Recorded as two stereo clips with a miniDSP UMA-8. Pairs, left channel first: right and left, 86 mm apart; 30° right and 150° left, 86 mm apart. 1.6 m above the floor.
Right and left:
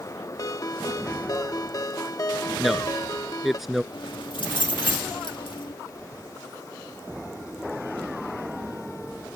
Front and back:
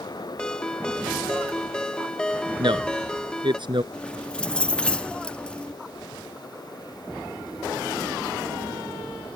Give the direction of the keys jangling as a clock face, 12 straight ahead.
4 o'clock.